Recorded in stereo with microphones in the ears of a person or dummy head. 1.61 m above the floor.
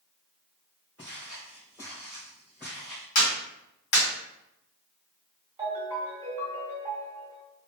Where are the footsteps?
5° left (ahead or behind), 1.6 m.